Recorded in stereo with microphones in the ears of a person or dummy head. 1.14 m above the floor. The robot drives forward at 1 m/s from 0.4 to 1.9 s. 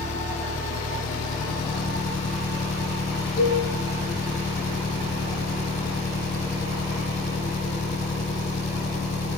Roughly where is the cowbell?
Left.